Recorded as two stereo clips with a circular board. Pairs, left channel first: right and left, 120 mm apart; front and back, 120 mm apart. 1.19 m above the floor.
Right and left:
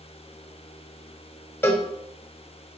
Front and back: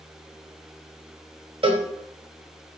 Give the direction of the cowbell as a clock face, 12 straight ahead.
5 o'clock.